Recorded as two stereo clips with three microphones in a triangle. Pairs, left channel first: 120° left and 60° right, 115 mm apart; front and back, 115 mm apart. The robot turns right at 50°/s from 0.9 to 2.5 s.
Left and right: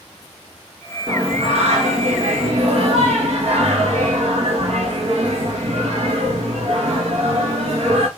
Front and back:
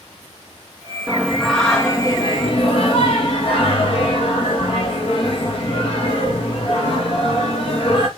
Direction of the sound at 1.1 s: 105° right.